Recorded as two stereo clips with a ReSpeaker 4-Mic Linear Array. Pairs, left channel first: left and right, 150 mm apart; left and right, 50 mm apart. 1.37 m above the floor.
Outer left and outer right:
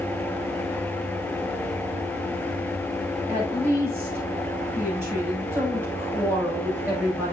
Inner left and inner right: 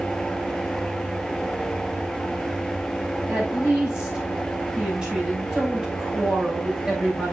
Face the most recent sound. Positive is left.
turn(degrees=-15)  # may be behind; listen again after turning